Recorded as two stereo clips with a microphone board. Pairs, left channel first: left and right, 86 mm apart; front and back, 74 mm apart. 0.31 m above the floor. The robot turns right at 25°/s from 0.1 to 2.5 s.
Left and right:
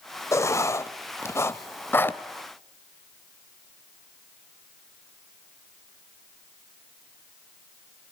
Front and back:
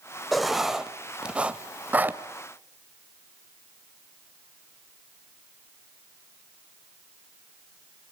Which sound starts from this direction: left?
Writing, at 0.3 s.